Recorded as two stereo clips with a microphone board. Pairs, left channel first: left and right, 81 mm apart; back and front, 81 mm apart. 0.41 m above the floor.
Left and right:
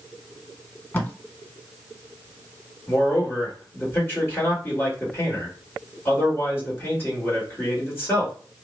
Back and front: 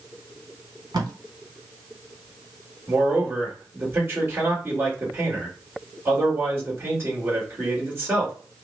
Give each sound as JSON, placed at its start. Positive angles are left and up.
{"t": 0.9, "sound": "tape being pulled", "azimuth_deg": 25, "distance_m": 0.9}
{"t": 2.9, "sound": "a man speaking", "azimuth_deg": 45, "distance_m": 1.5}